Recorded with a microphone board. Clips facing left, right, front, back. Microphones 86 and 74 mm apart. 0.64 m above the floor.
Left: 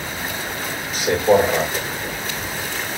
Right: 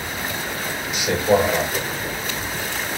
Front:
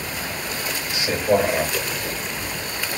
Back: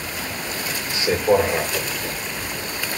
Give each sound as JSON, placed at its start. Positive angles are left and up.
{"t": 0.9, "sound": "a man speaking", "azimuth_deg": 130, "distance_m": 1.6}